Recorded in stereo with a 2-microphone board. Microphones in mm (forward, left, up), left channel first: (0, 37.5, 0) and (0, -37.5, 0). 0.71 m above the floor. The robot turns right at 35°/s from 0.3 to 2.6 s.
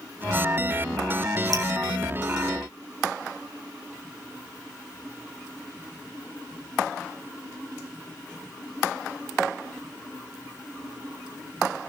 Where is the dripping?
55° right (ahead or behind), 3 m.